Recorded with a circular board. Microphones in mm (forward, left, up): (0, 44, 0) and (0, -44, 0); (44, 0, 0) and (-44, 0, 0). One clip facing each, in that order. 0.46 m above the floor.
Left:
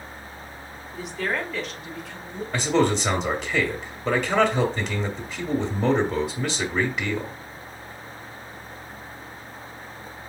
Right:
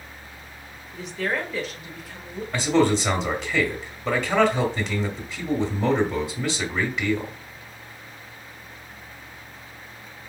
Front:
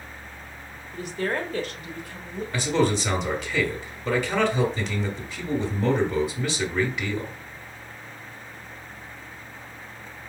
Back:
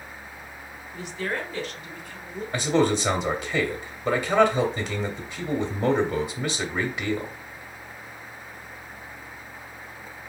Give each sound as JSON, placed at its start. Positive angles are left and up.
{"t": 0.9, "sound": "a woman speaking", "azimuth_deg": 5, "distance_m": 1.2}
{"t": 2.5, "sound": "a man speaking", "azimuth_deg": 160, "distance_m": 0.9}